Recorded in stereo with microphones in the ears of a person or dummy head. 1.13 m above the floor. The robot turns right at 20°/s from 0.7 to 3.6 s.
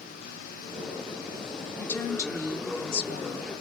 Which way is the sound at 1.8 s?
10° left.